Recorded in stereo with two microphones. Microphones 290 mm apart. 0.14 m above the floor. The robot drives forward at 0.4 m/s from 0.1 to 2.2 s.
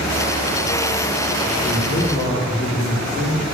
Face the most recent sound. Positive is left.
turn(degrees=5)  # may be behind; listen again after turning